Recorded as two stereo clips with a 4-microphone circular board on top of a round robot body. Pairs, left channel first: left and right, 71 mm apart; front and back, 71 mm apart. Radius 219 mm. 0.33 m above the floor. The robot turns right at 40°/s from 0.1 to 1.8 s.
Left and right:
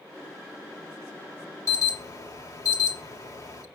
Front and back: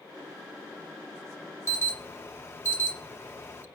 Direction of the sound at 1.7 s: 50° left.